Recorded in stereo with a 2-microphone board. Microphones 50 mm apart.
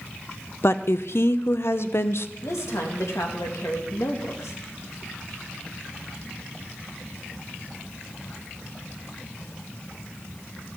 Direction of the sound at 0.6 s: 60° left (ahead or behind).